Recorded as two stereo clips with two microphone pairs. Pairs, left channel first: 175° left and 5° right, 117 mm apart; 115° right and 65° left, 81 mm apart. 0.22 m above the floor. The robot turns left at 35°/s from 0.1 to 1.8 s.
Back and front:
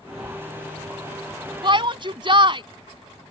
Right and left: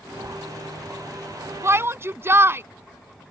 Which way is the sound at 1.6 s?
25° left.